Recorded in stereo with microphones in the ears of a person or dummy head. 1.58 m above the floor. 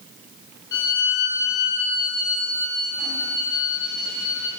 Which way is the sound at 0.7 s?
20° left (ahead or behind).